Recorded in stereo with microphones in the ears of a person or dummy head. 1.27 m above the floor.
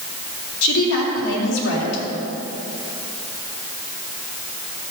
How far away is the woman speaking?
About 3.5 m.